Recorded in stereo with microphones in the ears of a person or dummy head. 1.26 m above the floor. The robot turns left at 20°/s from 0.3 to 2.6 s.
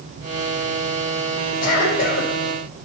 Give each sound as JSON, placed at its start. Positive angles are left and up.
{"t": 1.6, "sound": "a cough", "side_deg": 55, "distance_m": 5.5}